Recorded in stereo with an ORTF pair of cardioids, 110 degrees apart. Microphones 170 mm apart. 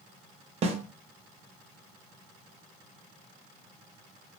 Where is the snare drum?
35° right, 0.6 m.